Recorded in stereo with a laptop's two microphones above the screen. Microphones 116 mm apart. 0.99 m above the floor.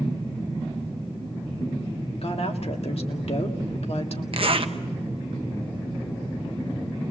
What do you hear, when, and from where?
2.2 s a woman speaking: 60° left (ahead or behind), 2 m
4.3 s a zipper: 50° right (ahead or behind), 1.2 m